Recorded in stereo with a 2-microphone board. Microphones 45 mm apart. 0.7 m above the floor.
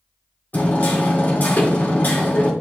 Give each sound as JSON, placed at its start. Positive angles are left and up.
{"t": 0.5, "sound": "hammering", "side_deg": 40, "distance_m": 1.9}